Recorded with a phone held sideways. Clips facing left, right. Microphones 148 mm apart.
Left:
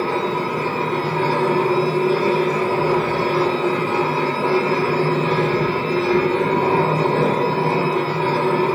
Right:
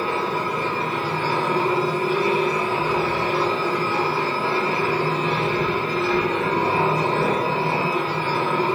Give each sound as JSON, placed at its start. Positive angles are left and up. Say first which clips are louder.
{"t": 0.0, "sound": "a machine running", "louder": "left 3 dB", "side_deg": 50, "distance_m": 3.0}